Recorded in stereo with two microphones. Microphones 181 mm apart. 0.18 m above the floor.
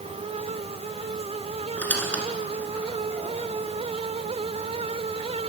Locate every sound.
1.8 s a squeak: 10° left (ahead or behind), 1.3 m